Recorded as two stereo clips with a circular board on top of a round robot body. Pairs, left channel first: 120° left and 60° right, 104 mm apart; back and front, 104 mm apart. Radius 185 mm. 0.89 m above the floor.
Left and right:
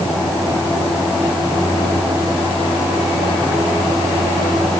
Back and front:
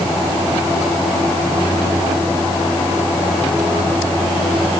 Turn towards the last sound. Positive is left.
No sound to turn to.